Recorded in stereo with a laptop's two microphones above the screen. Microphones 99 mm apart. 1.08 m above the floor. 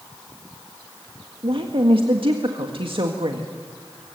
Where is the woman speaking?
60° right (ahead or behind), 1.7 m.